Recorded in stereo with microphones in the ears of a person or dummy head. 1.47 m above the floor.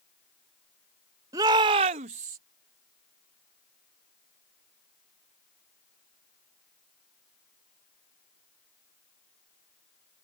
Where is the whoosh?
No whoosh in this recording.